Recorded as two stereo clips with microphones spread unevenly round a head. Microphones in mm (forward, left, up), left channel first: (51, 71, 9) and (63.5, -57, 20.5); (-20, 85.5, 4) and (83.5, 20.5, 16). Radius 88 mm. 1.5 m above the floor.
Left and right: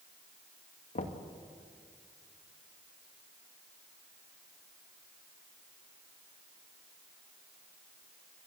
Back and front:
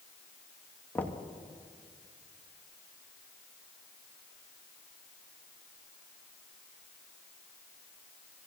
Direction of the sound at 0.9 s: 70° left.